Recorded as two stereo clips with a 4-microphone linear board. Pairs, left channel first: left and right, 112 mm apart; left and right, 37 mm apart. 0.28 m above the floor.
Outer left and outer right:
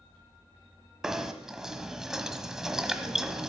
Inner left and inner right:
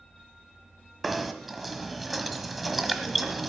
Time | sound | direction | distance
1.0 | knocking | 5° right (ahead or behind) | 1.4 m